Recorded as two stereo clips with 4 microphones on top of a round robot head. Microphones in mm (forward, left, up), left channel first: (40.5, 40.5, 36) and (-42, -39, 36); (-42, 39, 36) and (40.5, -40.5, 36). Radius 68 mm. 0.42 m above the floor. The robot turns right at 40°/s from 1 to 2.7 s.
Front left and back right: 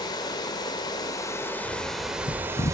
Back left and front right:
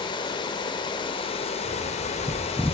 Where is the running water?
95° left, 0.8 m; by 2.8 s 160° left, 0.8 m.